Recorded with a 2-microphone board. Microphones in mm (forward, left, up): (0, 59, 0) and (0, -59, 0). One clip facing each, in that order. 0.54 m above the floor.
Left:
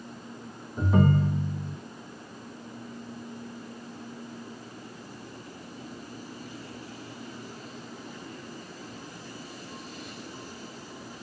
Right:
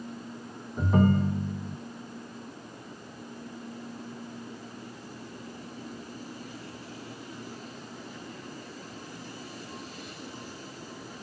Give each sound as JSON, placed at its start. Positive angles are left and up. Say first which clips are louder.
{"t": 0.8, "sound": "a ringtone", "louder": "even", "side_deg": 0, "distance_m": 0.7}